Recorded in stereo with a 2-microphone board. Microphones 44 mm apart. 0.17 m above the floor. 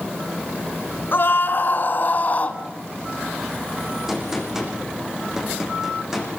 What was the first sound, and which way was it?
A scream, 50° left (ahead or behind).